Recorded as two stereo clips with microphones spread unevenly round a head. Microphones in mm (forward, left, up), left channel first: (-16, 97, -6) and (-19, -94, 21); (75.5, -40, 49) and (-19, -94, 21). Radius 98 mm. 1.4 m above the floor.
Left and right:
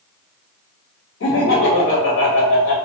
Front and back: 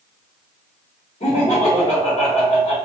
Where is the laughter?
75° left, 0.7 m.